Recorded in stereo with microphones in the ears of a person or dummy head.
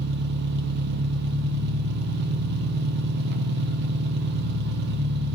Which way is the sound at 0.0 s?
55° right (ahead or behind).